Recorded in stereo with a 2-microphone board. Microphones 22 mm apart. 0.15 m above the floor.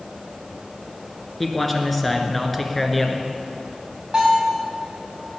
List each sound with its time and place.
1.4 s a man speaking: 5° left (ahead or behind), 1.7 m
4.1 s a bell: 25° right (ahead or behind), 6 m